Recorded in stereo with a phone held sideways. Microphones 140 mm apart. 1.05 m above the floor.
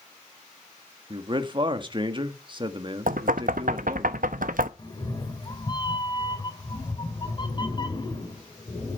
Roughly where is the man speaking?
Right.